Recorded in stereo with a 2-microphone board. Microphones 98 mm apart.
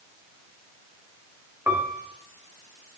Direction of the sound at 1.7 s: 20° right (ahead or behind).